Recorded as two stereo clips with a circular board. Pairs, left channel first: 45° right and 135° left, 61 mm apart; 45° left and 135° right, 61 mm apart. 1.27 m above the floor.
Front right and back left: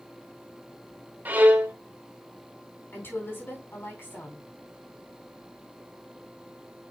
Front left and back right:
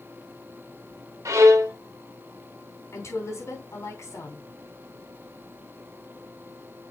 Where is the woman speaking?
10° left, 3.5 m.